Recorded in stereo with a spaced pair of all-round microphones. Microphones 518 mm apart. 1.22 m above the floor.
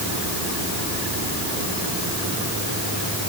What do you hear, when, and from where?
Only background noise.